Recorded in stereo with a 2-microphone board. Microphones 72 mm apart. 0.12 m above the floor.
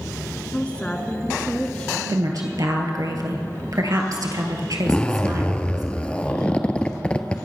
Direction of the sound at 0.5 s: 20° left (ahead or behind).